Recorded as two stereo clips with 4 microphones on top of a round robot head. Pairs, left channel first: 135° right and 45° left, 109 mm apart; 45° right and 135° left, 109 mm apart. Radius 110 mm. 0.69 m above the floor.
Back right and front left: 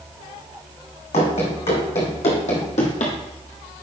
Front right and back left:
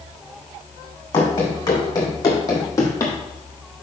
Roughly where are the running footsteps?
Right.